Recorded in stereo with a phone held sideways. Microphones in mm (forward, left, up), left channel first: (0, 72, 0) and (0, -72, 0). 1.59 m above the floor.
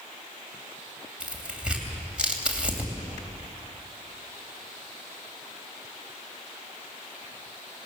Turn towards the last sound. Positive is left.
turn(degrees=-10)  # may be behind; listen again after turning